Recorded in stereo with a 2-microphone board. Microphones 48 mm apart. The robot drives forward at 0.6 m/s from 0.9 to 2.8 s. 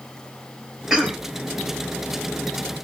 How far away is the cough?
About 2.5 m.